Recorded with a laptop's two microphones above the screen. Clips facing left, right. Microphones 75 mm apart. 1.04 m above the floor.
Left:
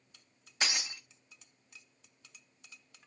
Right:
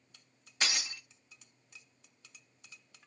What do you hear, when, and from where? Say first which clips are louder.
0.6 s breaking glass: even; 20° left (ahead or behind), 1.2 m